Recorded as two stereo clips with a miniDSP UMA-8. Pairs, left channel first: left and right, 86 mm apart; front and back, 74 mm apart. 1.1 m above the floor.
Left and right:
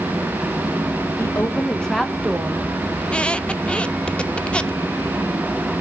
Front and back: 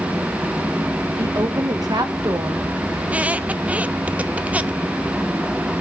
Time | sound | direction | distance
1.2 | a woman speaking | 145° left | 1.7 m
3.0 | a squeak | 145° left | 0.7 m